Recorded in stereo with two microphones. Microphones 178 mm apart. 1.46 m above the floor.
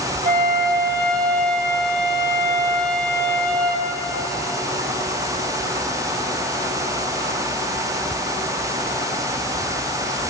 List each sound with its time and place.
0.2 s a flute: 55° right (ahead or behind), 2.5 m